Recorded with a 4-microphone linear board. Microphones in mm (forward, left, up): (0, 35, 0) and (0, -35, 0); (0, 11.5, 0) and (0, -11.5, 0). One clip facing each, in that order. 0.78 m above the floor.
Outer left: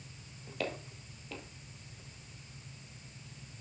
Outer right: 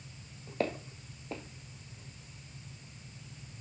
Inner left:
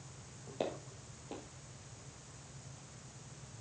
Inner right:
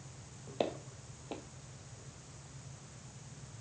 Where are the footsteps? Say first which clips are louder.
Outer right 5 dB, inner right 3 dB; 30° right (ahead or behind), 1.3 m.